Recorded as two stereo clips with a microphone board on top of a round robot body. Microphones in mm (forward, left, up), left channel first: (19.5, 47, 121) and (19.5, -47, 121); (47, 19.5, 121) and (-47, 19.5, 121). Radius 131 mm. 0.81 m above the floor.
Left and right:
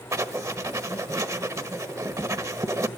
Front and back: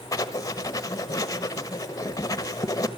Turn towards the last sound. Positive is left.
turn(degrees=-45)